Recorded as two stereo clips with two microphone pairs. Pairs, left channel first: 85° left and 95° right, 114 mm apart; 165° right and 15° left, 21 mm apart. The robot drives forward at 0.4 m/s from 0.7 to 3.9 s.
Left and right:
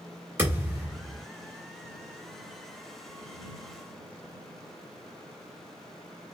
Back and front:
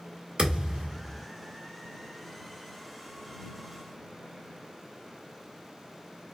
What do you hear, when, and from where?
0.4 s a thud: 25° right, 1.4 m